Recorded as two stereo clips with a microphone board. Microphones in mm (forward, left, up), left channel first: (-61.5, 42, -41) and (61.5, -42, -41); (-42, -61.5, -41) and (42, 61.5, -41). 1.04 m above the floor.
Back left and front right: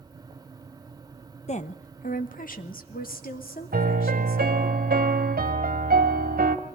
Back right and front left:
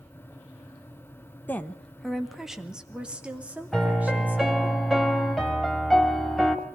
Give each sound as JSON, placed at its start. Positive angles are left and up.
{"t": 1.5, "sound": "a woman speaking", "azimuth_deg": 160, "distance_m": 1.0}
{"t": 3.7, "sound": "a piano", "azimuth_deg": -30, "distance_m": 1.8}